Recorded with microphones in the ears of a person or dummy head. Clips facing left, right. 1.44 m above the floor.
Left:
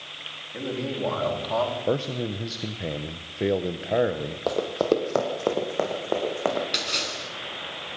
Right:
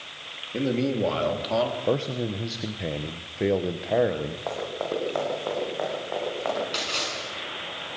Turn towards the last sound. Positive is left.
turn(degrees=25)  # may be behind; listen again after turning